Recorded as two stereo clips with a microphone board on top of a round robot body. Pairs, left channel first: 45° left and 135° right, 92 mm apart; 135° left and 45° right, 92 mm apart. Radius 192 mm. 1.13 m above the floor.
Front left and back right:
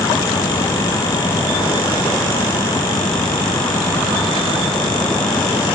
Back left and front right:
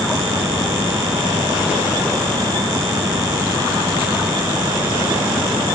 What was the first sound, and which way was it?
Only background noise.